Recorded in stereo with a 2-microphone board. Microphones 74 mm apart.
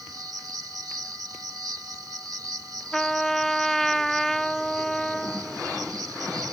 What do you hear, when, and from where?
0.0 s an insect: 55° right (ahead or behind)
2.9 s a trumpet: 5° left (ahead or behind)